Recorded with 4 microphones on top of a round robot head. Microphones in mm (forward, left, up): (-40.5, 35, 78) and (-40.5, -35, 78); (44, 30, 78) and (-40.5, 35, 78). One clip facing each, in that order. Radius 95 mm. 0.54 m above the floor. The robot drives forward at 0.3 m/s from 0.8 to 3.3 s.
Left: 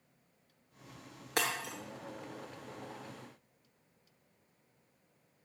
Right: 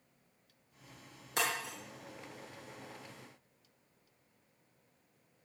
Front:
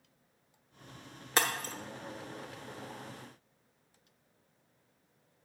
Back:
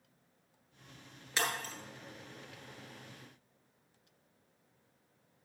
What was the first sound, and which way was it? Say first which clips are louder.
Breaking glass: left 1 dB, front 4 dB; 35° left.